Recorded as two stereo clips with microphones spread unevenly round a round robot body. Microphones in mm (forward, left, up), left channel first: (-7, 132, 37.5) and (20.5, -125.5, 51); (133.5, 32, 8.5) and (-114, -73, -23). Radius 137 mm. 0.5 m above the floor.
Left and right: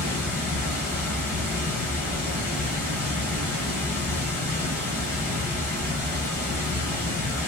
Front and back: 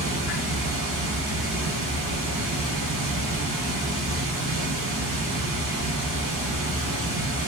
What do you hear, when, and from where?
0.0 s running water: 175° left, 1.6 m